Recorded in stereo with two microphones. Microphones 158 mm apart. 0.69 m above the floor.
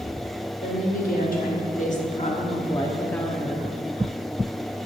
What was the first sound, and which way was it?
A woman speaking, 70° left (ahead or behind).